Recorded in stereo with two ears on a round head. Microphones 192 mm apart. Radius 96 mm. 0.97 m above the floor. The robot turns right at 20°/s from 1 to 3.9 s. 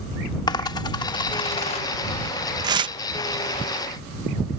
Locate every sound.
0.5 s a dropped coin: 20° left (ahead or behind); by 1.9 s 30° left (ahead or behind)
2.6 s tearing paper: 20° right (ahead or behind); by 3.0 s 25° right (ahead or behind)